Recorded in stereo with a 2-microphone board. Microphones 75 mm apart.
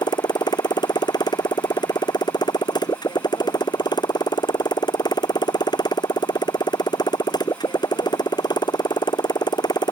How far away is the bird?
No bird in this recording.